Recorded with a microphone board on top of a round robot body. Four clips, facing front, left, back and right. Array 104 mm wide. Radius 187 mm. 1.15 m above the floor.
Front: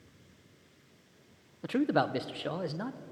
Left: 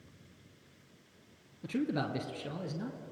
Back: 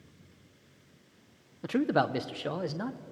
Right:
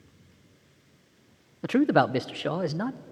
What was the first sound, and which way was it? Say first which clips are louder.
A man speaking: right 12 dB, back 1 dB; 95° right.